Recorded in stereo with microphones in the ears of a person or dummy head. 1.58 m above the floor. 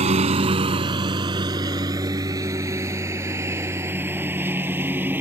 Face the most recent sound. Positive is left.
turn(degrees=-10)  # may be behind; listen again after turning